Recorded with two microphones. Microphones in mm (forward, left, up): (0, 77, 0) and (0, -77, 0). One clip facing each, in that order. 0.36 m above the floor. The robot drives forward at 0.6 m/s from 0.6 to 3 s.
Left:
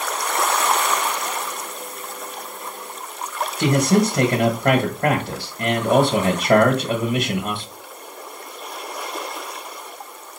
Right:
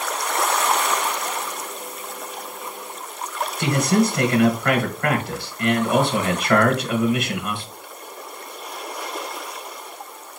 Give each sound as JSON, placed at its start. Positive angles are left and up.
{"t": 3.6, "sound": "a man speaking", "side_deg": 35, "distance_m": 1.1}